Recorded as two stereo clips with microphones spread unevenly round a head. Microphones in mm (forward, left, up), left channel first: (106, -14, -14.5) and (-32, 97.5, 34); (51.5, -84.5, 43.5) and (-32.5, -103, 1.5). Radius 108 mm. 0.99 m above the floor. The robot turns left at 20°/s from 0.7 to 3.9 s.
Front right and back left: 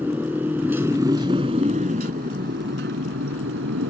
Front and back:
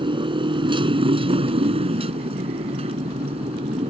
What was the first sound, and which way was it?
A motorcycle, 140° right.